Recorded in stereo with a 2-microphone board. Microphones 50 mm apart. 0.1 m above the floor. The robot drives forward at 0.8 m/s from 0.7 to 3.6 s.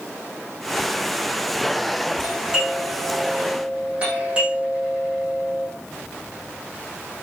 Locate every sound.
2.2 s a doorbell: 20° right (ahead or behind), 7.5 m; by 5.7 s 25° right (ahead or behind), 6.5 m